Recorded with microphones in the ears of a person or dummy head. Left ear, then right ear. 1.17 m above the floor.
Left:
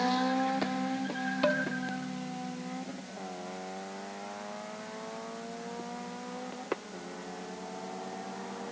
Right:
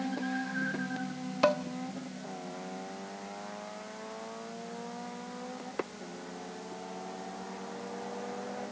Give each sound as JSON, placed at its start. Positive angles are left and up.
{"t": 1.4, "sound": "dishes clattering", "side_deg": -30, "distance_m": 1.0}